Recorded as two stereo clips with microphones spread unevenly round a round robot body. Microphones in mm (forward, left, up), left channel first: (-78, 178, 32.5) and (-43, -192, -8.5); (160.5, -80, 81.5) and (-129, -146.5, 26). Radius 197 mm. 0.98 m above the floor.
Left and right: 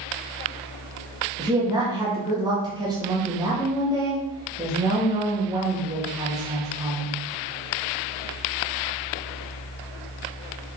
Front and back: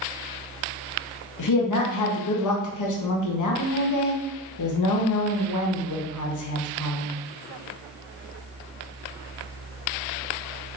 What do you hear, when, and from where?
1.4 s a woman speaking: 10° right, 1.7 m